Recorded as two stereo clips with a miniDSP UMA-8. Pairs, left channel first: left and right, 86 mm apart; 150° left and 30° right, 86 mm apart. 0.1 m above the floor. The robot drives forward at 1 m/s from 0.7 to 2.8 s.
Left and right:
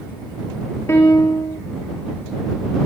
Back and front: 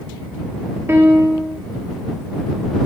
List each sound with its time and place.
0.9 s a piano: 30° left, 1.2 m; by 1.6 s 65° left, 0.7 m